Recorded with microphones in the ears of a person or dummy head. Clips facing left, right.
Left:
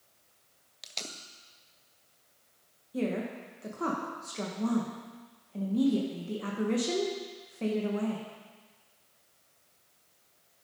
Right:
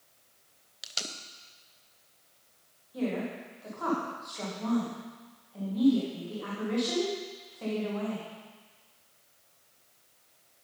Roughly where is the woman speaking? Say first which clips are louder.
Even; left.